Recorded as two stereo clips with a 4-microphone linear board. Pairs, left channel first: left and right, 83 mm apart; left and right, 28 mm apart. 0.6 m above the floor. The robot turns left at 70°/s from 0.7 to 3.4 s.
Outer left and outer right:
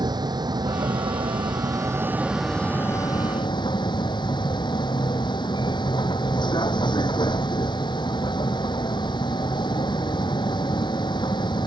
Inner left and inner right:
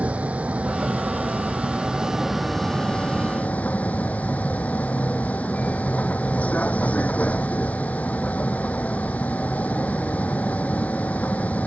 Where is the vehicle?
60° right; by 11.7 s 110° left.